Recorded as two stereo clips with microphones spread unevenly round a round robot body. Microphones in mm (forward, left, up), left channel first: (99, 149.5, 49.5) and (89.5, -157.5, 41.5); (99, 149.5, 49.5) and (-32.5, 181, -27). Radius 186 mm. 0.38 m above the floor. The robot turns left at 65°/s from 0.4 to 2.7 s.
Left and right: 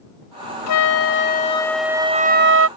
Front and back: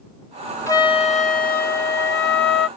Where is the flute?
70° left; by 2.7 s 60° right.